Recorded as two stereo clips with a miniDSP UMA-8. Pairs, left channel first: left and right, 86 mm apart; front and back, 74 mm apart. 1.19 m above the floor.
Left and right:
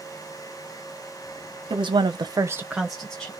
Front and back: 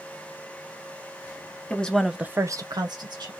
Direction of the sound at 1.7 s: 75° right.